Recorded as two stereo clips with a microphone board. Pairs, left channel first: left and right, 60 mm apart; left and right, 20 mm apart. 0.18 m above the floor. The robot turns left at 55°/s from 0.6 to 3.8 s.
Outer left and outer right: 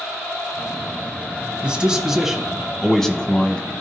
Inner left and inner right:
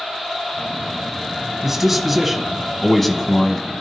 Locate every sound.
1.6 s a man speaking: 15° right (ahead or behind), 1.2 m; by 3.7 s 20° left (ahead or behind), 1.2 m